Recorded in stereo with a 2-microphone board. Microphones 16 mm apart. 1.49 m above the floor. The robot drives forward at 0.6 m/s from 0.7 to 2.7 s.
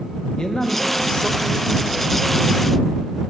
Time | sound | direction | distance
0.4 | a man speaking | 45° left (ahead or behind) | 1.4 m